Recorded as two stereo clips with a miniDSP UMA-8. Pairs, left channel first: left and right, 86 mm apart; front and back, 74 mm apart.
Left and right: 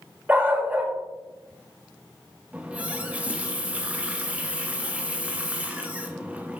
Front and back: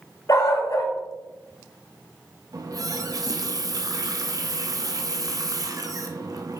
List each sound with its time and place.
0.3 s a dog barking: 25° right, 1.3 m
2.5 s a running tap: 160° right, 0.7 m